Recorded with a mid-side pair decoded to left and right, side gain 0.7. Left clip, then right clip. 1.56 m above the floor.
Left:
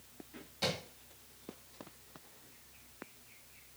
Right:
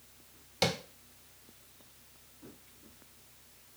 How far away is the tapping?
About 1.7 m.